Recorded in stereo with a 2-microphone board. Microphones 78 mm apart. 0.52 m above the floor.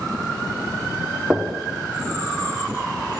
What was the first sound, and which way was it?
Knocking, 15° right (ahead or behind).